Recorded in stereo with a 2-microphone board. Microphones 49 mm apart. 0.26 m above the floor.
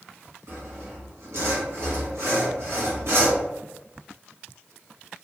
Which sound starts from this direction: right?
Sawing, at 0.5 s.